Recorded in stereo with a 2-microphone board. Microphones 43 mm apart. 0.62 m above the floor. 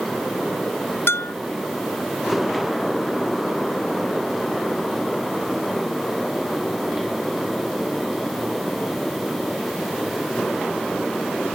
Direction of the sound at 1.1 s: 80° left.